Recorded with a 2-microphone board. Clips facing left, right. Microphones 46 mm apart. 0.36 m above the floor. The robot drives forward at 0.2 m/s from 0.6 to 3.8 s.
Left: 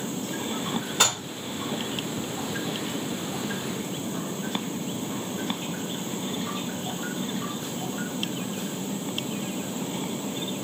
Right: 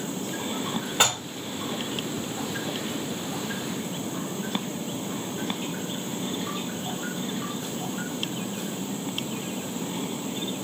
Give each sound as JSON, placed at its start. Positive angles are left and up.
{"t": 1.0, "sound": "dishes clattering", "side_deg": -30, "distance_m": 1.4}